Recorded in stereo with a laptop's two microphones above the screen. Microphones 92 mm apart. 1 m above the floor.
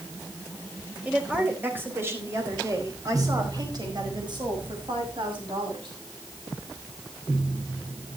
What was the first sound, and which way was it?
A woman speaking, 15° right (ahead or behind).